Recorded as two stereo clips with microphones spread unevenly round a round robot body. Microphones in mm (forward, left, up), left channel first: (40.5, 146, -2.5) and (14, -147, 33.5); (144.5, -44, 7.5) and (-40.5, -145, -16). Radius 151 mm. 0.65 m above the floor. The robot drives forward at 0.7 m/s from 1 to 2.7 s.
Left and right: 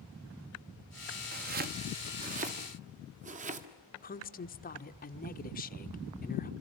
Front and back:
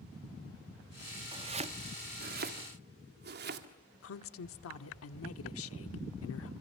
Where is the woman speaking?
30° left, 1.4 m.